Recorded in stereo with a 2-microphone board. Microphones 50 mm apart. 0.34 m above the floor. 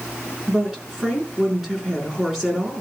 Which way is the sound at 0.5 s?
10° right (ahead or behind).